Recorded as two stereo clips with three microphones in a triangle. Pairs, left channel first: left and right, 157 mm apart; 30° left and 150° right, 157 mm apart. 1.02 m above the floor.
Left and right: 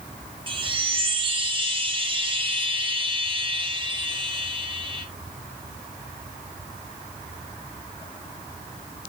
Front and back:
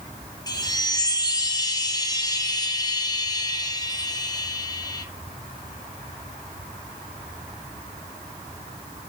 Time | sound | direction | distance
0.5 | a chime | 35° right | 1.2 m